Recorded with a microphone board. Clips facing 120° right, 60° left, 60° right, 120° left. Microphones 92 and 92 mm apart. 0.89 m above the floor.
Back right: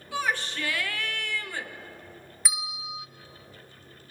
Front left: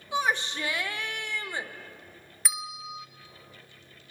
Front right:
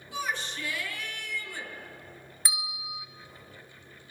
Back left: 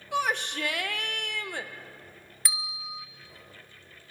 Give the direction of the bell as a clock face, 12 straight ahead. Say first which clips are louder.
Even, even; 1 o'clock.